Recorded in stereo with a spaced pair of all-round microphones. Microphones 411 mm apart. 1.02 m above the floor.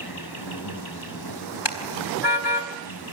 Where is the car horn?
85° left, 4 m.